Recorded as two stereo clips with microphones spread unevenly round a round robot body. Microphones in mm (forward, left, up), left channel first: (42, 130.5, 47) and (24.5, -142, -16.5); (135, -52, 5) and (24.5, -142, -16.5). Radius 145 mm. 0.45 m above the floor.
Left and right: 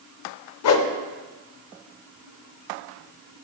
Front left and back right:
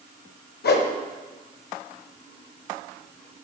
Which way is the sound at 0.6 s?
50° left.